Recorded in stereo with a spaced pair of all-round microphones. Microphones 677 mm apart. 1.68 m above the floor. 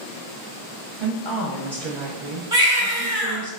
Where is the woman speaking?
40° right (ahead or behind), 1.3 m.